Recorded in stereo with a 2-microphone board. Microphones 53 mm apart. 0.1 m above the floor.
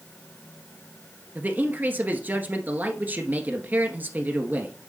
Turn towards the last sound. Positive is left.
turn(degrees=-35)  # may be behind; listen again after turning